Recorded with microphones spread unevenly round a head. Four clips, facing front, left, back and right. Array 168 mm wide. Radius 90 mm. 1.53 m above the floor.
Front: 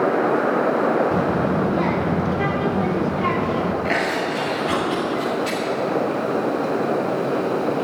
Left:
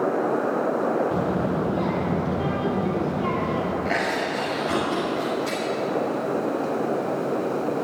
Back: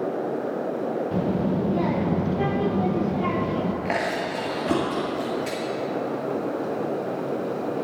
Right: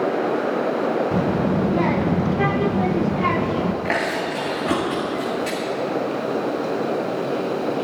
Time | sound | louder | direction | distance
1.1 | a child speaking | right 3 dB, front 4 dB | 115° right | 0.7 m
3.9 | chewing | right 2 dB, front 4 dB | 130° right | 2 m